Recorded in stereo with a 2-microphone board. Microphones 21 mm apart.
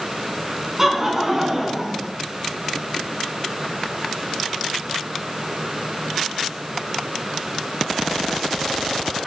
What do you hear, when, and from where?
0.8 s laughter: 20° right (ahead or behind), 2.0 m; by 2.1 s 30° right (ahead or behind), 1.9 m